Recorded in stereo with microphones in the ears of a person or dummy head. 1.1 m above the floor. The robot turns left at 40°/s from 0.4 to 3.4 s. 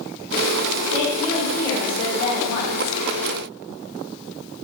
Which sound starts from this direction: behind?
A woman speaking, at 0.9 s.